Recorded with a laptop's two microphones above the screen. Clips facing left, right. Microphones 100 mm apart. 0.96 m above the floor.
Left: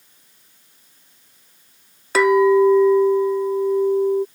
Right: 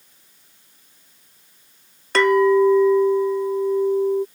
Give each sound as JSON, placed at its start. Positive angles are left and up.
{"t": 2.1, "sound": "a clink", "side_deg": 5}